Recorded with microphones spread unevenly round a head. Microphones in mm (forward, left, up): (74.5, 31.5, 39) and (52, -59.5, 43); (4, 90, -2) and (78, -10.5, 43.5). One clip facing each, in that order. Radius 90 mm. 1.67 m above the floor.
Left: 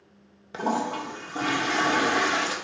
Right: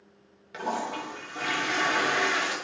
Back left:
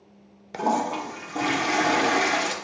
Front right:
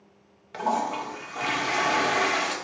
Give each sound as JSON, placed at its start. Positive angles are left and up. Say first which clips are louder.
{"t": 0.5, "sound": "a toilet flushing", "louder": "left 4 dB, back left 2 dB", "azimuth_deg": 85, "distance_m": 0.7}